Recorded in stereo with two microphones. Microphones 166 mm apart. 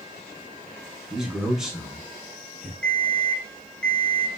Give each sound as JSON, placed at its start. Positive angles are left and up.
{"t": 1.1, "sound": "a man speaking", "side_deg": -5, "distance_m": 1.1}
{"t": 2.8, "sound": "an alarm clock", "side_deg": 5, "distance_m": 0.6}